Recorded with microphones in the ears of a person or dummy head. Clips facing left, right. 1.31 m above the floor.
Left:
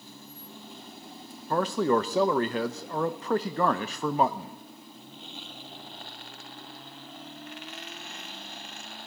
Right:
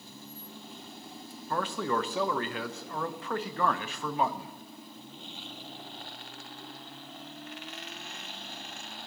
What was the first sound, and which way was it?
A man speaking, 35° left (ahead or behind).